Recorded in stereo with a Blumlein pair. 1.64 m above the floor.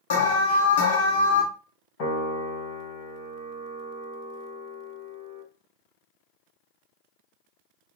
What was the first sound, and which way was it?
An alarm, 60° left.